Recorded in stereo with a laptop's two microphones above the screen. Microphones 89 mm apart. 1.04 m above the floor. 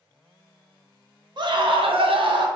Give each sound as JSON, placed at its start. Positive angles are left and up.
{"t": 1.4, "sound": "a scream", "side_deg": -55, "distance_m": 0.9}